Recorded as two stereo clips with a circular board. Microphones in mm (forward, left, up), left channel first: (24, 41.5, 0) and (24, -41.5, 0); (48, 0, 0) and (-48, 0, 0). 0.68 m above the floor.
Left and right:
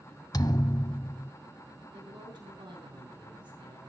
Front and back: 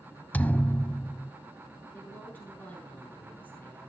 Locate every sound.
0.3 s a thud: 70° left, 0.7 m
1.9 s a woman speaking: 70° right, 10 m